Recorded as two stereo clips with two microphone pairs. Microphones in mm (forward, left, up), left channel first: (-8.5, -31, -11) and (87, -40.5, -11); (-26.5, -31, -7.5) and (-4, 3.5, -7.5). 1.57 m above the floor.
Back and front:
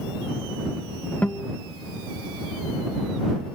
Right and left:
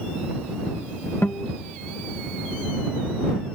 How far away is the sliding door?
No sliding door in this recording.